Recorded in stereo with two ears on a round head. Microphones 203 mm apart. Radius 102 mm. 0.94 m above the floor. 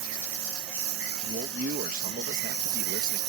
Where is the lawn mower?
60° right (ahead or behind); by 3.3 s 70° right (ahead or behind).